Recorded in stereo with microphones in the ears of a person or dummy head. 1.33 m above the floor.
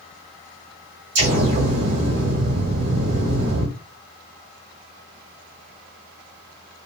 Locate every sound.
1.1 s an explosion: 45° right (ahead or behind), 1.4 m